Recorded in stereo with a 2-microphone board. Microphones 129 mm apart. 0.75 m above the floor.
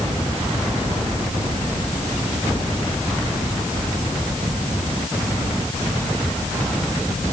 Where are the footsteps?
I don't hear footsteps.